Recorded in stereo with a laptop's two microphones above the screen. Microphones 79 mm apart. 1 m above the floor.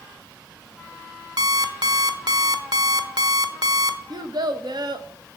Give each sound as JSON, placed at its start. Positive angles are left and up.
{"t": 1.4, "sound": "an alarm clock", "side_deg": -60, "distance_m": 1.1}
{"t": 4.1, "sound": "a child speaking", "side_deg": -60, "distance_m": 0.7}